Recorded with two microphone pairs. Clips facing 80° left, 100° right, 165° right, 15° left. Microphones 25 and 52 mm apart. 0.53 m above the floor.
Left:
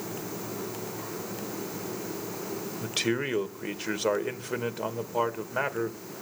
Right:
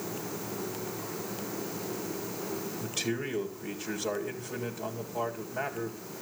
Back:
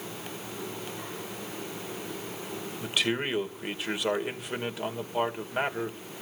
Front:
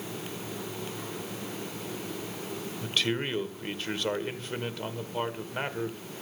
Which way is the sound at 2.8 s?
120° left.